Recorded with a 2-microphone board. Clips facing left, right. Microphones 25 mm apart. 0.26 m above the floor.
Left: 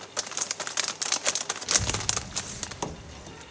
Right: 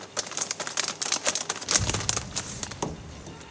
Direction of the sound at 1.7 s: 10° left (ahead or behind).